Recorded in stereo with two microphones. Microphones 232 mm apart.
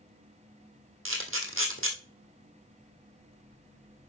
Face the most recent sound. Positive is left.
turn(degrees=-65)  # may be behind; listen again after turning